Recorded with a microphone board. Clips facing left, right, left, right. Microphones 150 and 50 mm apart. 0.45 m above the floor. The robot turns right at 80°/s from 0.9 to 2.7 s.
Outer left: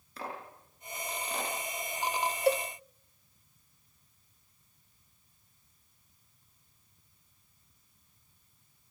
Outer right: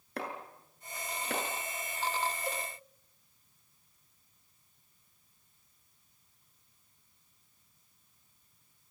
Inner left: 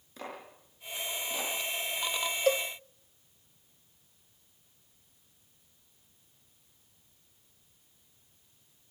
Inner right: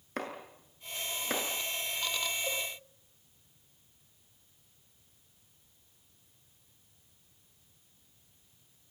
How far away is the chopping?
About 7 m.